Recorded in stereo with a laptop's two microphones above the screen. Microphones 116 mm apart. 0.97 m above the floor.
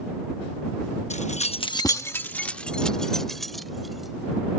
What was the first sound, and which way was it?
Keys jangling, 70° left (ahead or behind).